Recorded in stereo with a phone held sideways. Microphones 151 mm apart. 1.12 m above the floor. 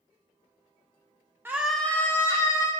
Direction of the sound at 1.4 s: 15° right (ahead or behind).